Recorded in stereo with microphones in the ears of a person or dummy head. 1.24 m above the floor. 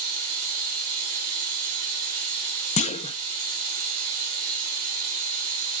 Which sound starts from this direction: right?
Running water, at 0.0 s.